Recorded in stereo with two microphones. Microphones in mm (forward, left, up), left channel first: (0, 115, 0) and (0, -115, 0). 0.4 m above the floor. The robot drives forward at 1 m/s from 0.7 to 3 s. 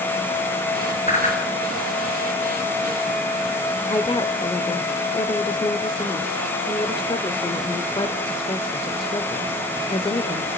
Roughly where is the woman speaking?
Left.